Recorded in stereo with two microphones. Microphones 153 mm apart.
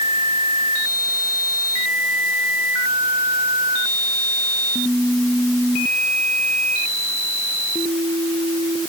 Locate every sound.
Only background noise.